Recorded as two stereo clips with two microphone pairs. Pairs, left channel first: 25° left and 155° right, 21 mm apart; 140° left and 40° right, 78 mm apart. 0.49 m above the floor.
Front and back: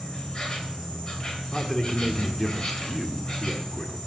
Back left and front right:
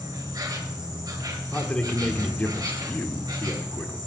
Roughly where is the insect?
Ahead.